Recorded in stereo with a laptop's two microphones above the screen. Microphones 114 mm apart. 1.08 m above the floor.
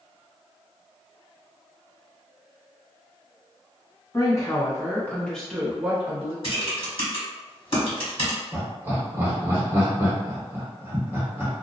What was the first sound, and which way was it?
A woman speaking, 30° left (ahead or behind).